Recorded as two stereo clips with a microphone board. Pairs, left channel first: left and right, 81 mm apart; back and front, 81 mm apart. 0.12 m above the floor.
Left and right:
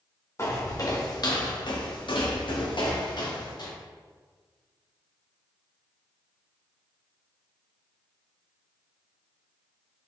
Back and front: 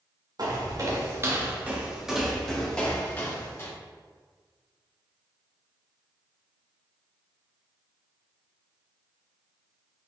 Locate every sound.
0.4 s footsteps: 35° left, 1.2 m; by 3.7 s 120° left, 1.5 m